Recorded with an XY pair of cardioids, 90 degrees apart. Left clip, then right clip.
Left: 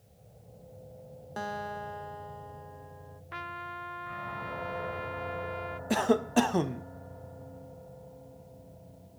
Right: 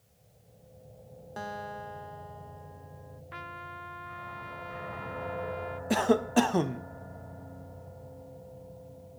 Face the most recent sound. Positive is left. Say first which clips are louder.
# right 1 dB
turn(degrees=-5)